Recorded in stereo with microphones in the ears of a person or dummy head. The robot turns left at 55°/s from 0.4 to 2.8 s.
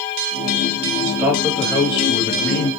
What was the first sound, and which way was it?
A man speaking, 160° right.